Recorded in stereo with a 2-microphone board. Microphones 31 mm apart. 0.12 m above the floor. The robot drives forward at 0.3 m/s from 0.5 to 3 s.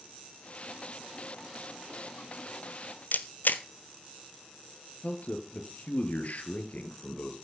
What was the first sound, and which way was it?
A camera shutter, 70° left (ahead or behind).